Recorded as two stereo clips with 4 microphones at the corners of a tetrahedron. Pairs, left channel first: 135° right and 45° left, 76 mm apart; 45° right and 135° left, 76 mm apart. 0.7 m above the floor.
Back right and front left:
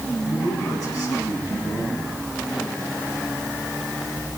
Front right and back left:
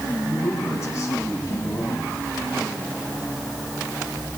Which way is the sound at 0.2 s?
95° right.